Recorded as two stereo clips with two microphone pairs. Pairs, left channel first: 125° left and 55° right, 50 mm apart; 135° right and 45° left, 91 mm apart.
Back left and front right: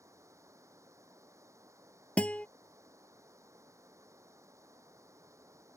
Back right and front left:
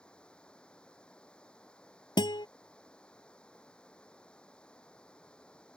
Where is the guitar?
170° right.